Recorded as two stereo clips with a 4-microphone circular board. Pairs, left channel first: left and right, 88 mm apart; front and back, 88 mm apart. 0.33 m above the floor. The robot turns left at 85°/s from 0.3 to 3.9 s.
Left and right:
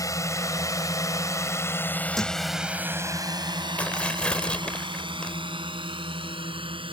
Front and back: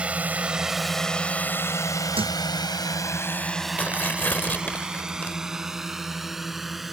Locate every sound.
0.0 s a drone: 110° left; by 6.9 s 90° right
2.1 s a thud: straight behind; by 2.4 s 160° left
3.8 s tearing paper: 45° left; by 5.3 s 35° left